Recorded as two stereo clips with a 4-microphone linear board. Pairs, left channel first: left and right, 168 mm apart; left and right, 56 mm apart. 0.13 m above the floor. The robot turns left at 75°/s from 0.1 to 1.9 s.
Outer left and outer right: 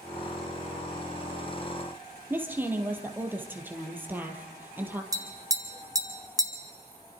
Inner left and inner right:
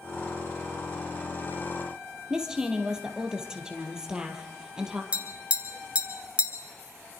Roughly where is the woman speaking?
Centre.